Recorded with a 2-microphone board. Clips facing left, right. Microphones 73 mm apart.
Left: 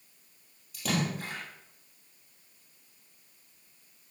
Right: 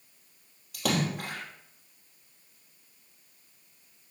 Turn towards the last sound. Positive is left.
turn(degrees=-65)  # may be behind; listen again after turning